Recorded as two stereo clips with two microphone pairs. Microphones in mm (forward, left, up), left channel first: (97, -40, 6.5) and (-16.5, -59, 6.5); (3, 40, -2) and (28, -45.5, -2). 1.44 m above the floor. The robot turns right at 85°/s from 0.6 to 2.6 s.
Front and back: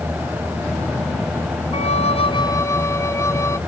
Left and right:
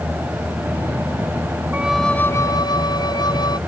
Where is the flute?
5° right; by 3.6 s 70° left.